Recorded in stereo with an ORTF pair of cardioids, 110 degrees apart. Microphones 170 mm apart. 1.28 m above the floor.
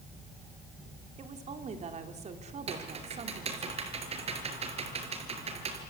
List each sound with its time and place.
1.2 s a woman speaking: 40° right, 3.5 m
2.7 s typing on a keyboard: 35° right, 5 m